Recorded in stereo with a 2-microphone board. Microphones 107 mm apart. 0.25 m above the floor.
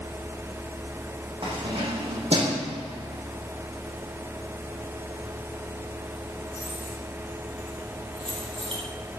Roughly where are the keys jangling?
Right.